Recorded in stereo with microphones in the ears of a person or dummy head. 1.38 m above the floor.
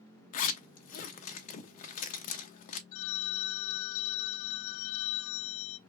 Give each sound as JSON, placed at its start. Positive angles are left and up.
{"t": 0.3, "sound": "a zipper", "side_deg": 45, "distance_m": 0.6}
{"t": 2.9, "sound": "a phone ringing", "side_deg": 65, "distance_m": 0.6}